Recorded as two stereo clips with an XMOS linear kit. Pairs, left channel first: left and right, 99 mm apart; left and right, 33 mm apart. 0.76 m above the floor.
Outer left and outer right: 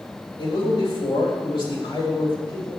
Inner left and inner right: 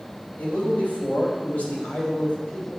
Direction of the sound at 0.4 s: 60° left (ahead or behind).